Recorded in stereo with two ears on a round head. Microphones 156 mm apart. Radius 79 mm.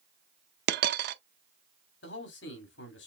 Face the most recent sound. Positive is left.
turn(degrees=70)  # may be behind; listen again after turning